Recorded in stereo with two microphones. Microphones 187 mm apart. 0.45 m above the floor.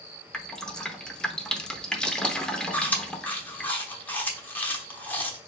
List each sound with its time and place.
0.3 s dripping: 5° left (ahead or behind), 0.6 m
2.7 s chewing: 10° left (ahead or behind), 0.9 m